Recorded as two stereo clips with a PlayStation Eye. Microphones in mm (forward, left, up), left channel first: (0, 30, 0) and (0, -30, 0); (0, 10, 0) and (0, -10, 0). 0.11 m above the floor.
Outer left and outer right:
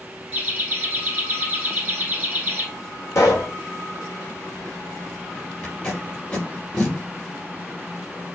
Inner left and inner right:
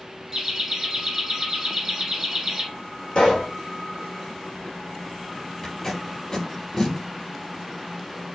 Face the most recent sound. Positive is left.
turn(degrees=20)  # may be behind; listen again after turning